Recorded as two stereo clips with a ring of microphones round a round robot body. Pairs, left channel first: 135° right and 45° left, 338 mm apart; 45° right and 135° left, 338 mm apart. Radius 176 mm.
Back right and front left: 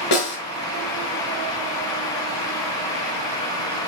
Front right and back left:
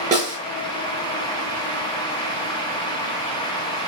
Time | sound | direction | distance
0.1 | a snare drum | 155° right | 6 m